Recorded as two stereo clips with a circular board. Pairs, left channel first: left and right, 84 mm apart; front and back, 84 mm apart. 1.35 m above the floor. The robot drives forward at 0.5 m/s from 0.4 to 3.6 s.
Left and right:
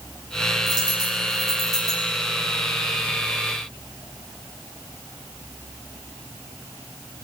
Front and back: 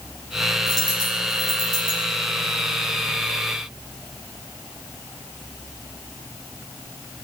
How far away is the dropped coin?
About 9.5 m.